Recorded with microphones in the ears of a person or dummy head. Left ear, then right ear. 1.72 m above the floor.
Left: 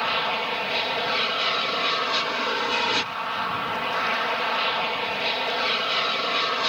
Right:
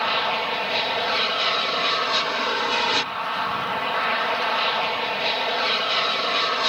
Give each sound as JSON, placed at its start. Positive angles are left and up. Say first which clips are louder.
{"t": 0.0, "sound": "an aircraft", "louder": "right 2 dB", "side_deg": -10}